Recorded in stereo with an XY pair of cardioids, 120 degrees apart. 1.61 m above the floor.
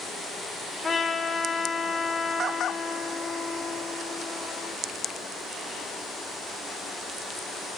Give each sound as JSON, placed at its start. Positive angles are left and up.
{"t": 0.8, "sound": "a trumpet", "azimuth_deg": 20, "distance_m": 7.0}